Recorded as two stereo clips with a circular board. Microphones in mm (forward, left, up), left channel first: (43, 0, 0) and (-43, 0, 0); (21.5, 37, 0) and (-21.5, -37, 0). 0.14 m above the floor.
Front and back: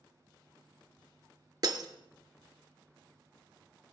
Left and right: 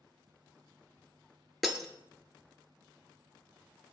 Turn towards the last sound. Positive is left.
turn(degrees=150)